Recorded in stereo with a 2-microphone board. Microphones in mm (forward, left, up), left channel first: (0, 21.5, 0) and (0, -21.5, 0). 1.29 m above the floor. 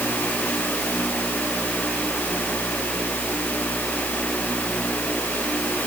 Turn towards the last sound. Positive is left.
No sound to turn to.